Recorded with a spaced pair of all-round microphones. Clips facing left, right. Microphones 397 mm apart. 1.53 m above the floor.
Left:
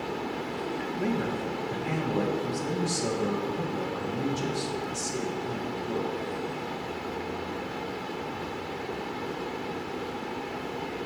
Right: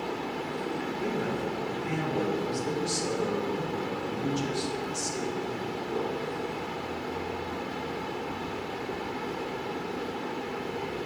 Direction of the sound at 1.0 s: 70° left (ahead or behind).